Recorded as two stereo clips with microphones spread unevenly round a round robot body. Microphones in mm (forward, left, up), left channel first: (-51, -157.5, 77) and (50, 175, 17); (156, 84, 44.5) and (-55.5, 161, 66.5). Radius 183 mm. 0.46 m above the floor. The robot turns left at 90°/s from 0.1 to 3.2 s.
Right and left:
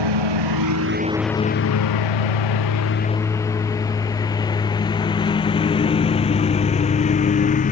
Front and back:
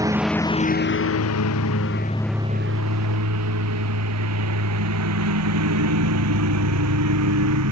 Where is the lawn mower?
85° left; by 7.7 s 175° right.